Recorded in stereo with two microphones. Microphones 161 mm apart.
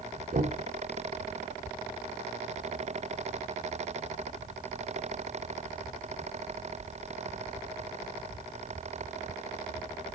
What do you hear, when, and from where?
0.3 s knocking: 55° right (ahead or behind), 0.8 m